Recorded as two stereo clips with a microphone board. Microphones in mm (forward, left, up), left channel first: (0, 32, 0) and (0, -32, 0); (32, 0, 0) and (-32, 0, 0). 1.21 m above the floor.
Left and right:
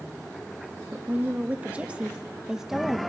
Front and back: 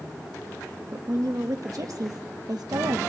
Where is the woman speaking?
150° right, 1.9 m; by 3.0 s straight behind, 1.1 m.